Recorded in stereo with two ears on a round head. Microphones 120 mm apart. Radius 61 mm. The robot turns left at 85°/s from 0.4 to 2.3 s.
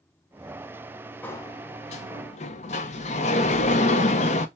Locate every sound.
1.2 s a sliding door: 165° left, 0.7 m; by 4.5 s 75° left, 0.7 m